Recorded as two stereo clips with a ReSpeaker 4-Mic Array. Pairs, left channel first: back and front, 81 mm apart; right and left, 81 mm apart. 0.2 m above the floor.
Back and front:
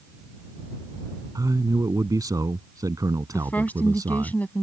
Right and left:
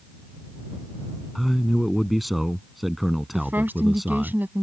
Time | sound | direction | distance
1.4 | a man speaking | straight ahead | ?
3.3 | a woman speaking | 130° left | ?